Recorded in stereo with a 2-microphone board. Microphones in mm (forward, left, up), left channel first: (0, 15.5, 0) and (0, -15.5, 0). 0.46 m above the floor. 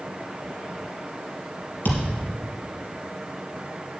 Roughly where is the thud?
Left.